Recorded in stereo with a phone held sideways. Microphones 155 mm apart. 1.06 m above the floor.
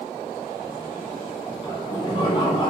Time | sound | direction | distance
1.6 | laughter | 30° left (ahead or behind) | 0.8 m